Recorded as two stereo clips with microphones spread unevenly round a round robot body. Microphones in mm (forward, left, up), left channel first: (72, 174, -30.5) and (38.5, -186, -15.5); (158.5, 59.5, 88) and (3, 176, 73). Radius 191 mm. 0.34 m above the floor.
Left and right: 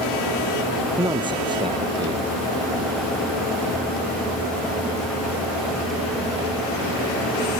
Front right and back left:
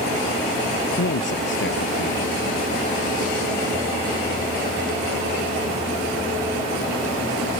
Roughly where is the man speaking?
Ahead.